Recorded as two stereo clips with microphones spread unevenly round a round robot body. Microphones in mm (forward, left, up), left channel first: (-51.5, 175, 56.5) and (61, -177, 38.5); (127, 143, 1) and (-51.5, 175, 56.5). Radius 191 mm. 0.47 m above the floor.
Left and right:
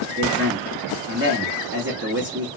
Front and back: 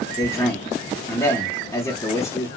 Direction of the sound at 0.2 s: 40° right.